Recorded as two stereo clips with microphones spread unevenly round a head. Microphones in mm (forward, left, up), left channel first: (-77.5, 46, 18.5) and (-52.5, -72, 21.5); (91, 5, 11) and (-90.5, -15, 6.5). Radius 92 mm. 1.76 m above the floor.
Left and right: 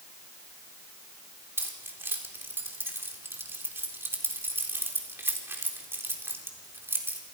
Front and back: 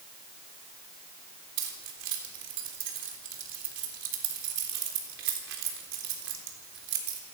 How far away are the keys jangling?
About 4 m.